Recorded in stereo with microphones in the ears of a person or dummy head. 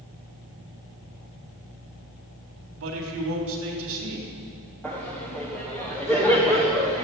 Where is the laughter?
10° left (ahead or behind), 1.3 m.